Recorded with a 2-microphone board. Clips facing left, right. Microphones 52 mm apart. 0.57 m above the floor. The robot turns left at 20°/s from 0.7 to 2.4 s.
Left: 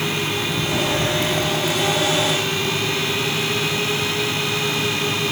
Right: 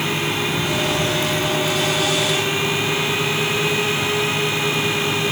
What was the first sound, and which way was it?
Only background noise.